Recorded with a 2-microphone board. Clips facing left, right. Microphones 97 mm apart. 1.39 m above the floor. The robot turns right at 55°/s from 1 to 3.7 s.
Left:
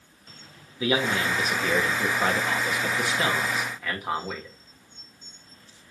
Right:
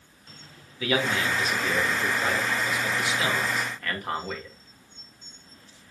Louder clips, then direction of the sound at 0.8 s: Left 1 dB; 25° left.